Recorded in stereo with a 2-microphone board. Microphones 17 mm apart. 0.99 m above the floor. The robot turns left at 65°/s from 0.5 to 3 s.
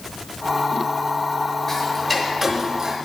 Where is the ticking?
35° left, 1.2 m; by 3.0 s 45° right, 1.2 m.